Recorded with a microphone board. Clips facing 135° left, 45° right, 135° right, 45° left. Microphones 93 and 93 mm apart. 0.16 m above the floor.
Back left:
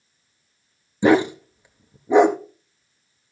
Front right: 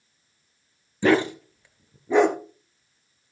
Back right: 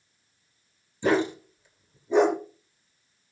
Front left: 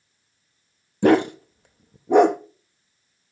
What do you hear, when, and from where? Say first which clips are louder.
1.0 s a dog barking: back left 4 dB, front left 7 dB; 65° left, 1.1 m